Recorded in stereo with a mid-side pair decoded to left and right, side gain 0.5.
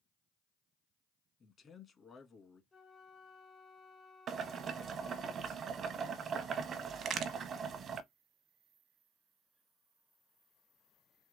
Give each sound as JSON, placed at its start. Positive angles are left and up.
{"t": 1.4, "sound": "a man speaking", "azimuth_deg": 40, "distance_m": 1.6}
{"t": 2.7, "sound": "a flute", "azimuth_deg": 25, "distance_m": 0.9}
{"t": 4.3, "sound": "boiling", "azimuth_deg": -50, "distance_m": 0.8}
{"t": 7.0, "sound": "a crack", "azimuth_deg": -60, "distance_m": 0.9}